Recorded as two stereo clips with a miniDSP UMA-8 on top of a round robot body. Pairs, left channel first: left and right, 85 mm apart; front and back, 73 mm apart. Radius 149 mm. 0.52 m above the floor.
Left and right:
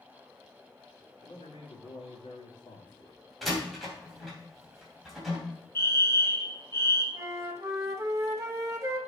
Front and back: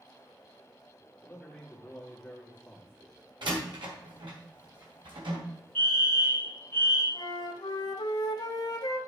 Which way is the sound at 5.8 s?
55° left.